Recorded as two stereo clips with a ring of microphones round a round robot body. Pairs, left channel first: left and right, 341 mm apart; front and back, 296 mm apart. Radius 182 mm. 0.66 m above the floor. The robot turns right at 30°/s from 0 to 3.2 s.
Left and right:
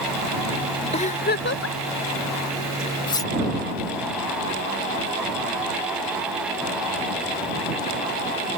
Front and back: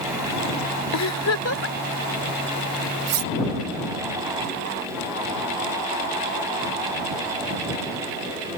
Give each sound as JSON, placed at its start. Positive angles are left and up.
{"t": 0.9, "sound": "a giggle", "azimuth_deg": 20}
{"t": 3.1, "sound": "cutlery clinking", "azimuth_deg": 165}